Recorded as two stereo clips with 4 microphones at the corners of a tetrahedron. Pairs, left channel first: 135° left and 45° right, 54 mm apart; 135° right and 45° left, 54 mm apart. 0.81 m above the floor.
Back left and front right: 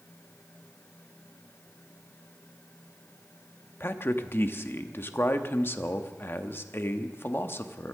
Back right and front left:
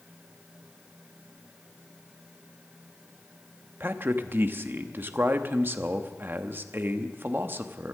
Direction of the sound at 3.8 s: 90° left.